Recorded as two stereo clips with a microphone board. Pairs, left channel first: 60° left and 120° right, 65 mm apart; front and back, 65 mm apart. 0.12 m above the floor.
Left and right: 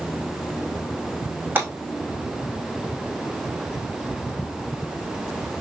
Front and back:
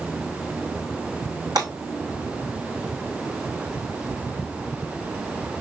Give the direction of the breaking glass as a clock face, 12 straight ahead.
6 o'clock.